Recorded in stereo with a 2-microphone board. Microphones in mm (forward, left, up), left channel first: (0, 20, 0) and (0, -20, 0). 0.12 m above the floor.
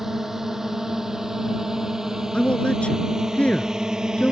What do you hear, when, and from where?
0.0 s a drone: 10° right (ahead or behind); by 4.3 s 15° right (ahead or behind)
2.3 s a man speaking: 30° left (ahead or behind)